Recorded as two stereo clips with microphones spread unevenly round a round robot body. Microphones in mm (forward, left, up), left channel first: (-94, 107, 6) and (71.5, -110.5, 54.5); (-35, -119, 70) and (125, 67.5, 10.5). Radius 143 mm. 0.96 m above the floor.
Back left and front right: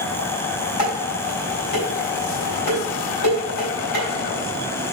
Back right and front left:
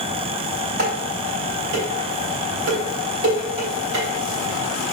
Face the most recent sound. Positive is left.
turn(degrees=100)